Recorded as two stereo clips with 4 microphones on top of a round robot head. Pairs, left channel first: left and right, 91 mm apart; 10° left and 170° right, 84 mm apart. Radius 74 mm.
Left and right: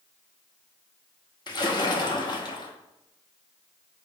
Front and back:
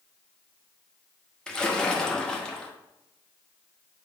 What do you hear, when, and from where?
1.5 s a splash: 90° left, 1.4 m